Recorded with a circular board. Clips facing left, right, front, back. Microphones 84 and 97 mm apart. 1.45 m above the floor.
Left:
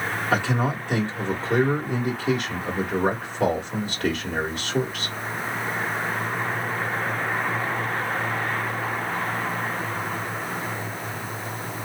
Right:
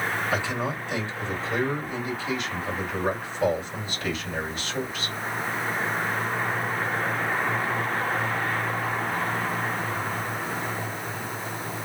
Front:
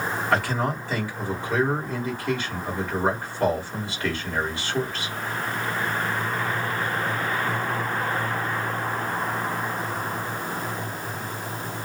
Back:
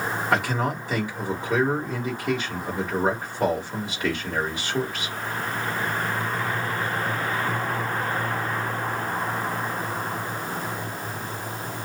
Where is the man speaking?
105° left, 1.7 m.